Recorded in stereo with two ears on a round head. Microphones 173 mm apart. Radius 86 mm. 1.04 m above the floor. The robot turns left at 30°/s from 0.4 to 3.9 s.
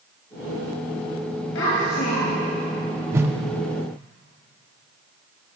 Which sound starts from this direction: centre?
A whoosh, at 3.1 s.